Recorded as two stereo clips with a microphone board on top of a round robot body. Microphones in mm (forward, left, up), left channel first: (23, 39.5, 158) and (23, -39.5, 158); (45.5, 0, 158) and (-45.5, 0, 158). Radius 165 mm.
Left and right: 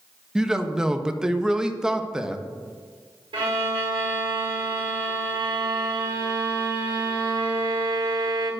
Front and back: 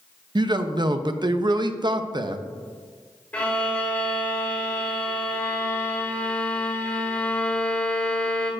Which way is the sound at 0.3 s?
170° right.